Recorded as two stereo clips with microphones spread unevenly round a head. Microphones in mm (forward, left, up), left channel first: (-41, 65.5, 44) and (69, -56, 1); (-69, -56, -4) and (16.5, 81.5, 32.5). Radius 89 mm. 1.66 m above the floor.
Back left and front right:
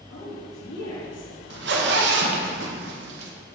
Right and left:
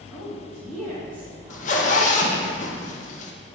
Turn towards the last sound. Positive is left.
turn(degrees=-70)